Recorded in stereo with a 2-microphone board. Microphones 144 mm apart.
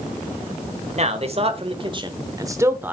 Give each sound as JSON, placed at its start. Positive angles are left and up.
{"t": 1.0, "sound": "a man speaking", "side_deg": -50, "distance_m": 1.4}